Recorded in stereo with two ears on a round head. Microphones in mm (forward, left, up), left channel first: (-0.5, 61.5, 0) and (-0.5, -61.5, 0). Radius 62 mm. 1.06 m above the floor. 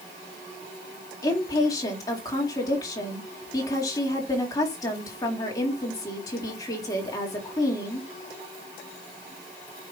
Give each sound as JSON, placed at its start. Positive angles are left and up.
{"t": 1.2, "sound": "a woman speaking", "side_deg": 25, "distance_m": 2.5}